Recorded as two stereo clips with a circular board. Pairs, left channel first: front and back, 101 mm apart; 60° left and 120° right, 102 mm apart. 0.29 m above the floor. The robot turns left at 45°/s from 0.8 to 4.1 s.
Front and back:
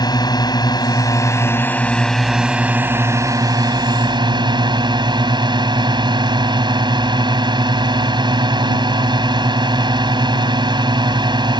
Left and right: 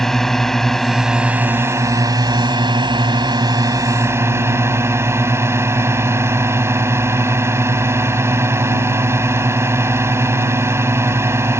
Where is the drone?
25° right; by 11.6 s 175° right.